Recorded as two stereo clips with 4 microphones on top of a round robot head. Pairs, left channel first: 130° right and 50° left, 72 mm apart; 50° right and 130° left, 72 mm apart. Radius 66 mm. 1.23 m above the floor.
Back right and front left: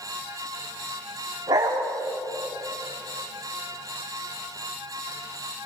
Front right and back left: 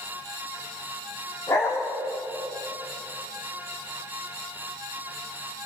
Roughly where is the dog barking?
Ahead.